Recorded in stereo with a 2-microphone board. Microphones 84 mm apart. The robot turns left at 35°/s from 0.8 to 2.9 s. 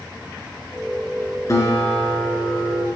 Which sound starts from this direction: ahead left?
A guitar, at 1.5 s.